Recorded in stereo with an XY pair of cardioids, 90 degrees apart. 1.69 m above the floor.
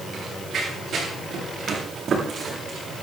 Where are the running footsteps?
60° right, 8 m; by 3.0 s 50° right, 9 m.